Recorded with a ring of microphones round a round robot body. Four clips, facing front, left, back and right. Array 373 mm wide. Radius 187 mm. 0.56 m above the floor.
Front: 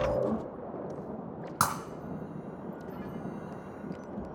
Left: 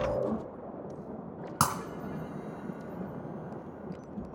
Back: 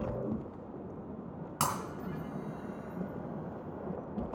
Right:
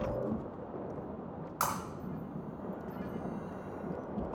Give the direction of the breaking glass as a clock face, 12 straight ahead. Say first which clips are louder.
Left 5 dB, front 3 dB; 9 o'clock.